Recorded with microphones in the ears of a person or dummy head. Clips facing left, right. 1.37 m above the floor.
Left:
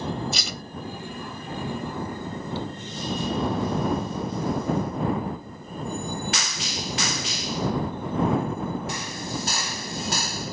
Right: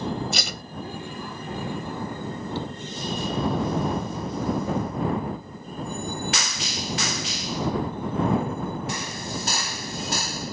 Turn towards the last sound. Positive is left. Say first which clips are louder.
# right 1 dB
turn(degrees=-60)  # may be behind; listen again after turning